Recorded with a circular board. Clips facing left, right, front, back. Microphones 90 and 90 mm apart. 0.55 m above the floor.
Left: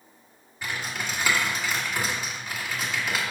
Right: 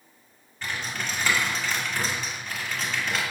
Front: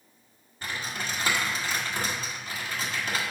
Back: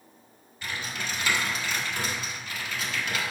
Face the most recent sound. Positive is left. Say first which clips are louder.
# even, front 1 dB
turn(degrees=15)